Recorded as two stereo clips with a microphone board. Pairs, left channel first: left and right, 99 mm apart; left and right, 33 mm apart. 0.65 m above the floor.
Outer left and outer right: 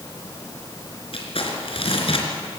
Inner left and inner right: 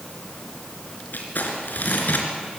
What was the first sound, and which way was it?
Crumpling, 70° left (ahead or behind).